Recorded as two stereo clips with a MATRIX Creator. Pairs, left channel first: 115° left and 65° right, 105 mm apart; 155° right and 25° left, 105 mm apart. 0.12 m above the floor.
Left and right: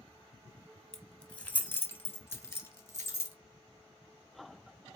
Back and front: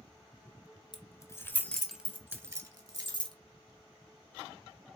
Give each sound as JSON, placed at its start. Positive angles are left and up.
{"t": 0.9, "sound": "keys jangling", "azimuth_deg": -165, "distance_m": 1.4}